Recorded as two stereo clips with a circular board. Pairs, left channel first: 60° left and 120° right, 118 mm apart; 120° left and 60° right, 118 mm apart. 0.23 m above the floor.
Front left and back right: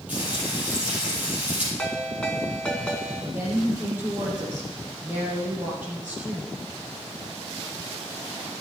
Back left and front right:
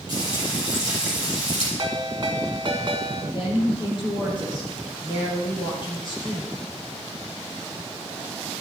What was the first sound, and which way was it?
Frying, 160° left.